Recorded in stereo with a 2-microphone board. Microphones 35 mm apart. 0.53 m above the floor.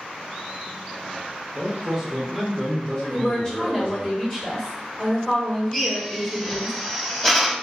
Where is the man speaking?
20° right (ahead or behind), 0.8 m; by 4.1 s 55° left (ahead or behind), 1.3 m.